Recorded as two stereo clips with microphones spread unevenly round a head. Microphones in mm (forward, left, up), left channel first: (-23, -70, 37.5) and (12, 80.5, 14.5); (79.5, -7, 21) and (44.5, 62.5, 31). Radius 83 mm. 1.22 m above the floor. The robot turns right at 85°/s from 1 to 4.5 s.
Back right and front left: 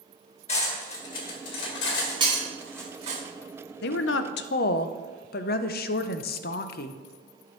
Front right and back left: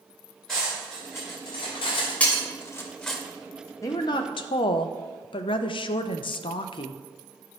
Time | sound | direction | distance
0.5 | cutlery clinking | 150° right | 1.7 m
2.2 | breaking glass | 10° left | 1.8 m
3.8 | a woman speaking | 130° right | 0.5 m